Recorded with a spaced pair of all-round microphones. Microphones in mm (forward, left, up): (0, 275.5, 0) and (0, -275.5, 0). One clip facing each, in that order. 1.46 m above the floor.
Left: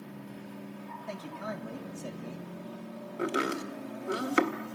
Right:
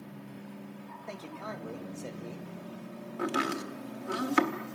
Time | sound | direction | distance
1.1 | a man speaking | 35° left (ahead or behind) | 2.5 m
3.2 | chopping | 20° right (ahead or behind) | 1.5 m